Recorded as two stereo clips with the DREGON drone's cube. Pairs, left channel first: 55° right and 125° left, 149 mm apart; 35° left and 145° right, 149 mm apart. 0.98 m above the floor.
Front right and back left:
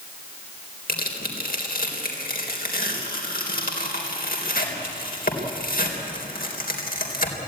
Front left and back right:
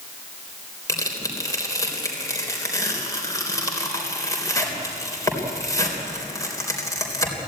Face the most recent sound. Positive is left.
turn(degrees=-35)